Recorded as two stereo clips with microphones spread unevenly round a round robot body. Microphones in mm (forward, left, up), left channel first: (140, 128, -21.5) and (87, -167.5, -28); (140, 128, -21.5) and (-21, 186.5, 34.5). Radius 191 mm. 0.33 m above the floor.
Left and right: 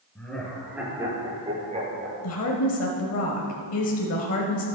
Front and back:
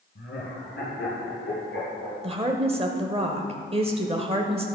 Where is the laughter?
5° right, 4.5 m; by 2.1 s 40° right, 5.5 m.